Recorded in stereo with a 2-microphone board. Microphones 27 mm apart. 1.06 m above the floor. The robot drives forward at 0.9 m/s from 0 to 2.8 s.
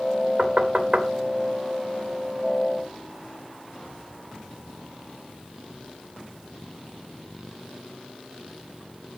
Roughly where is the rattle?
I don't hear a rattle.